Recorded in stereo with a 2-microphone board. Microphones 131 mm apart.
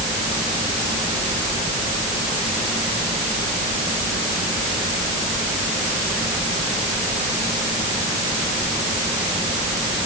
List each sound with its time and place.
Only background noise.